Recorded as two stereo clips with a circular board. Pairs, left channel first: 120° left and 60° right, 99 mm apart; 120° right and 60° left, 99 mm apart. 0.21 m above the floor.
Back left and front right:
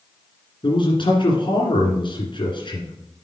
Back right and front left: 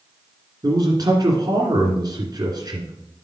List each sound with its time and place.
0.6 s a man speaking: 100° left, 2 m